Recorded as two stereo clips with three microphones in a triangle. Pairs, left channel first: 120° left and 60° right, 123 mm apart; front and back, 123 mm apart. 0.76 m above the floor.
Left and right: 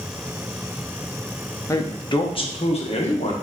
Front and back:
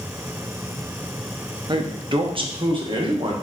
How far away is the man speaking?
About 0.6 m.